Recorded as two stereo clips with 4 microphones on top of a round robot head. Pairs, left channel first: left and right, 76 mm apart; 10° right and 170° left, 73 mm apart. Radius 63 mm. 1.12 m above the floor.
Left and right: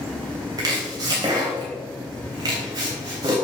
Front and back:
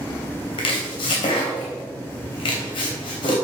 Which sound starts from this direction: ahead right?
Chopping, at 0.6 s.